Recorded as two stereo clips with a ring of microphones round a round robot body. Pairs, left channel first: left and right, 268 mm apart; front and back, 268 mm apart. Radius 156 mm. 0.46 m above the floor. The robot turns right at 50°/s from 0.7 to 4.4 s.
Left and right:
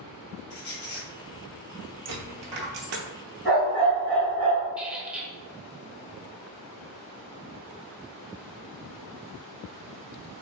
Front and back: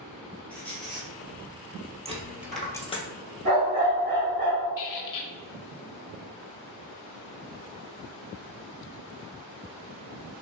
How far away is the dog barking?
About 1.9 m.